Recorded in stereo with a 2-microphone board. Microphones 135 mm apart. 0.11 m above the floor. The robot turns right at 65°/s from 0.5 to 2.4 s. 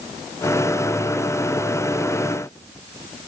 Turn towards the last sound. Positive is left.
No sound to turn to.